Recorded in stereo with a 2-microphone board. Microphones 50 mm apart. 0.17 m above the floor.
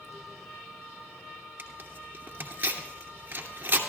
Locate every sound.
1.6 s tearing paper: 40° right (ahead or behind), 2.5 m